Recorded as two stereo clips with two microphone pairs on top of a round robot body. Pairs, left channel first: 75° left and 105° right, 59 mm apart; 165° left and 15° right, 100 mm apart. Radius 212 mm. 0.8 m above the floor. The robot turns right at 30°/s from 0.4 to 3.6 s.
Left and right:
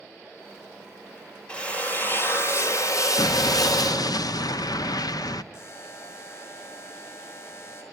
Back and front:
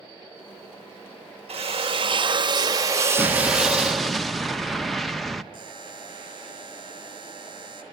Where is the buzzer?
35° left, 5.5 m.